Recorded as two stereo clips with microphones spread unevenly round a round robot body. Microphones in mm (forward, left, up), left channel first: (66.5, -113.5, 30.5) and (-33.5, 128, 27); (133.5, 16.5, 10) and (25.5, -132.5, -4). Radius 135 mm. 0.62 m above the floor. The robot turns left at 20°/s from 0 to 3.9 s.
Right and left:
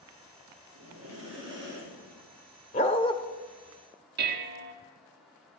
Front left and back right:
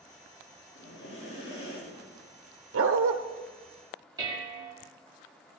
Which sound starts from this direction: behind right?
A dog barking, at 2.7 s.